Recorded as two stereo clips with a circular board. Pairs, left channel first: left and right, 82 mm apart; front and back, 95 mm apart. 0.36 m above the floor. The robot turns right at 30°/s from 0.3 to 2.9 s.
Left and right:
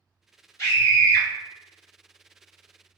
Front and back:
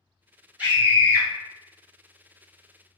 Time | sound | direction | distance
0.6 | a scream | 115° left | 1.7 m